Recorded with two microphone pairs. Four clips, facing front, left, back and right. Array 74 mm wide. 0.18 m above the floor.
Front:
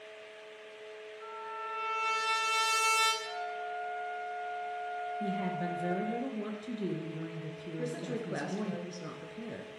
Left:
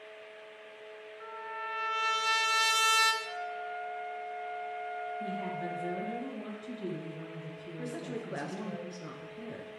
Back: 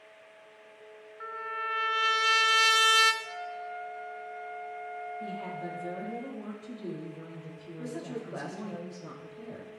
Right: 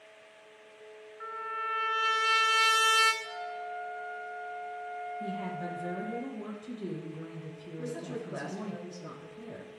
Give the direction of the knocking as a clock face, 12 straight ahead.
No knocking in this recording.